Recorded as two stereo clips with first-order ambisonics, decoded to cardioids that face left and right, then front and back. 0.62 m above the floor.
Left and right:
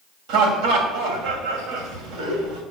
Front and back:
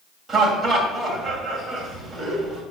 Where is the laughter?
100° right, 2.5 m.